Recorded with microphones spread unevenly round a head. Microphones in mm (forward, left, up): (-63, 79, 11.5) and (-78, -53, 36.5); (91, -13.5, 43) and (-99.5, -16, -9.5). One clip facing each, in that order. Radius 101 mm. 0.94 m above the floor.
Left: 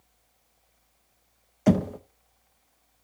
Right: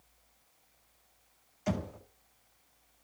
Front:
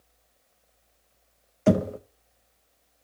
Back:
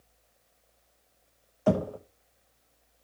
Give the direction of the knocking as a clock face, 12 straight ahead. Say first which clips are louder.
Left 13 dB, front 4 dB; 10 o'clock.